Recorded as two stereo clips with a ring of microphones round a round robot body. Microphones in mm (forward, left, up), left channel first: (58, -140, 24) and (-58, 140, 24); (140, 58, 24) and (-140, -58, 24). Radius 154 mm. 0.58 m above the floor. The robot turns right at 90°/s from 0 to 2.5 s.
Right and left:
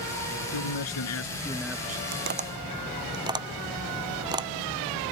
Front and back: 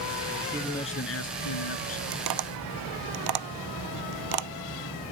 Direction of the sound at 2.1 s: 155° left.